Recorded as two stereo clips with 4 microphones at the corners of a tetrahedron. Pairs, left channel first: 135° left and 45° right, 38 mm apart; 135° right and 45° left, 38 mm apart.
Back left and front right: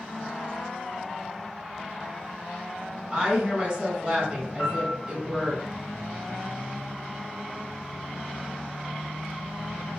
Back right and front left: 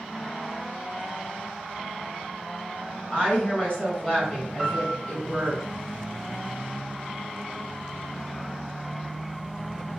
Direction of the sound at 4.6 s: 140° left.